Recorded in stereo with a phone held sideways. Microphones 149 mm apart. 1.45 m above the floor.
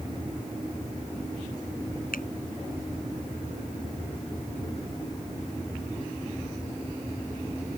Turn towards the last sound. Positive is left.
turn(degrees=85)